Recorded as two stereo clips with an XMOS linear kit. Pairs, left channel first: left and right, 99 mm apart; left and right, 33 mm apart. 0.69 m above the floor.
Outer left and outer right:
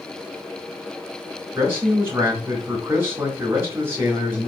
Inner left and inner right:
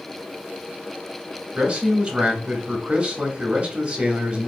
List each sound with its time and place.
1.6 s a man speaking: 25° right (ahead or behind), 1.1 m